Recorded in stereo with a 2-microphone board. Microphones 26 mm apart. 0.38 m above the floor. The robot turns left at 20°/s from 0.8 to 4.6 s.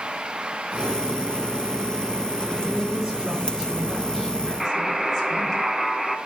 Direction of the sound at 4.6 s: 10° right (ahead or behind).